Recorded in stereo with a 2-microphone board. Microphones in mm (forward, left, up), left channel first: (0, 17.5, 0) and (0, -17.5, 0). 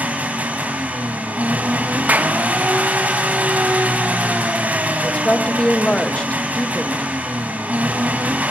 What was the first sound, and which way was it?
An engine running, 50° right (ahead or behind).